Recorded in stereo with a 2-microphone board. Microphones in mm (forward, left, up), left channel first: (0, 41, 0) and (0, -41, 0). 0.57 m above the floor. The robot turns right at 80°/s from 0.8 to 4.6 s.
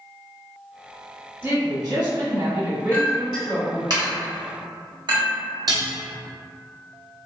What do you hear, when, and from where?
1.4 s a woman speaking: 135° right, 1.2 m; by 3.9 s 60° left, 1.2 m
2.9 s a clink: 20° left (ahead or behind), 1.0 m; by 5.3 s 60° right (ahead or behind), 1.0 m
5.7 s dishes clattering: 50° right (ahead or behind), 0.6 m